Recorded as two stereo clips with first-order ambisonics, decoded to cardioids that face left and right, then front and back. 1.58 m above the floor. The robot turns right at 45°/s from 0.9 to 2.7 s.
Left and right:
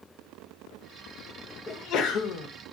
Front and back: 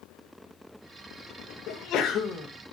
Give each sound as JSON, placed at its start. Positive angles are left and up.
{"t": 1.7, "sound": "a sneeze", "azimuth_deg": 30, "distance_m": 0.7}